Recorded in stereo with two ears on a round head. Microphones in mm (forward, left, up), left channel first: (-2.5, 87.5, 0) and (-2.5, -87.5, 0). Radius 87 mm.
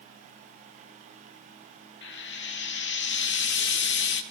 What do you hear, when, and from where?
2.0 s frying: 60° left (ahead or behind), 2.0 m